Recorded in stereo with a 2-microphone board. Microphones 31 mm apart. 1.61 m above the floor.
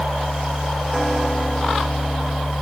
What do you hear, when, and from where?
Only background noise.